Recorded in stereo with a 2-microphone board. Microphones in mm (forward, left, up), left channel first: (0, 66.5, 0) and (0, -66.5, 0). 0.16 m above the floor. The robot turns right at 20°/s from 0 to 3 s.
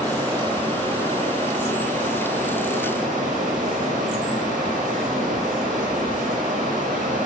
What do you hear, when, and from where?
0.0 s running water: 155° right, 5 m; by 7.3 s 95° right, 5 m